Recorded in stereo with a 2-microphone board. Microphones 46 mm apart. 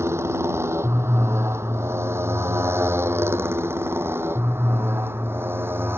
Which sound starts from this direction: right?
A motorcycle, at 0.0 s.